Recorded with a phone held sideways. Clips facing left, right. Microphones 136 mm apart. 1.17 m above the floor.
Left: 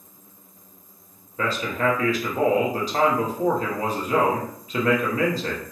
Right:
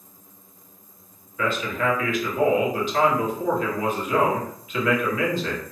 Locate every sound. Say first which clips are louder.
1.4 s a man speaking: even; 40° left (ahead or behind), 0.8 m